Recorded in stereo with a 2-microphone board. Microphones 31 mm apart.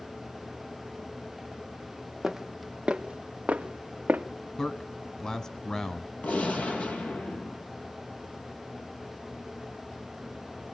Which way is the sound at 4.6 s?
20° left (ahead or behind).